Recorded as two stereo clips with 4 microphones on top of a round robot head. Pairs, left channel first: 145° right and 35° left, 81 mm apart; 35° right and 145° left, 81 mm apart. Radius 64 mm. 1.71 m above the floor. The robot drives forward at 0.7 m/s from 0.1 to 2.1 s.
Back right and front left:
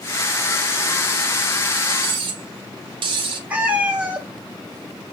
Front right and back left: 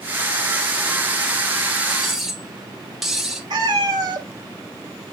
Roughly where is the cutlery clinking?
Ahead left.